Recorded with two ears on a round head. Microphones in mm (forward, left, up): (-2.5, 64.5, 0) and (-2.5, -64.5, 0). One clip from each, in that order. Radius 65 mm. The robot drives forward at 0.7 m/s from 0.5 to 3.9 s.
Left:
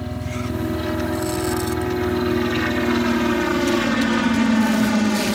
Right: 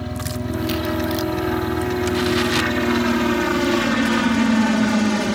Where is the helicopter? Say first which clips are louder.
Even; 10° right (ahead or behind); by 5.4 s 5° right (ahead or behind).